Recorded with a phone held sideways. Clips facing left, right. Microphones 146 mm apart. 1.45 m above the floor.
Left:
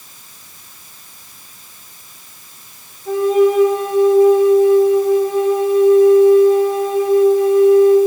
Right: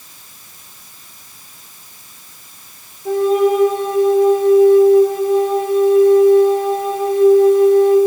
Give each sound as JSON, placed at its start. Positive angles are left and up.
{"t": 3.0, "sound": "a flute", "side_deg": -65, "distance_m": 3.0}